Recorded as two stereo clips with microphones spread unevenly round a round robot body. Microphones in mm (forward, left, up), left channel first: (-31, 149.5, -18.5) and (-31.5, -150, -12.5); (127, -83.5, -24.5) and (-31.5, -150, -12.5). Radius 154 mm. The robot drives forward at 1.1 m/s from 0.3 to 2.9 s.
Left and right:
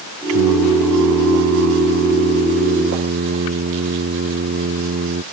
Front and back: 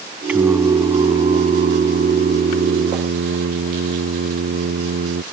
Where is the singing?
75° right; by 5.2 s 145° right.